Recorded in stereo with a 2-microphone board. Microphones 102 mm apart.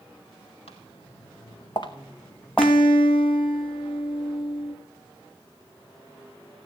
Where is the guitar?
65° left (ahead or behind), 2 m.